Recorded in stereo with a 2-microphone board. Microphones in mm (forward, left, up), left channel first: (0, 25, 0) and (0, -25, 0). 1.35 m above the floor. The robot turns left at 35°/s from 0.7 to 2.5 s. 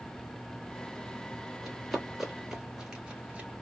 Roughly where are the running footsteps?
Centre.